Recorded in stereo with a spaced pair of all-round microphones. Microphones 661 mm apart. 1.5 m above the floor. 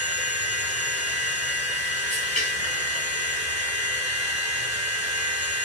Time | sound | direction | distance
0.0 | a machine running | 65° left (ahead or behind) | 4 m